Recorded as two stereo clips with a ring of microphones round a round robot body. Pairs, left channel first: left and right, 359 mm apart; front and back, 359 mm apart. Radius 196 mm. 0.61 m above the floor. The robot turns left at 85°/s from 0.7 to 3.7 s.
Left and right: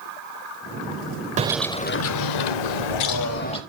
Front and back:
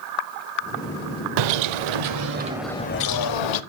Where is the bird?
160° right, 0.7 m; by 3.6 s 10° left, 0.7 m.